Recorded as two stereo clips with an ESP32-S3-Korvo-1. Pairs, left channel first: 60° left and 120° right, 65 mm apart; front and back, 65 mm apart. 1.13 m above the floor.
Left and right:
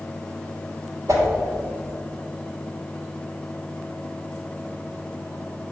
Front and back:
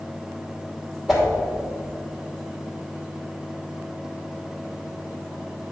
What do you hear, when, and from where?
1.1 s a whoosh: 95° right, 2.5 m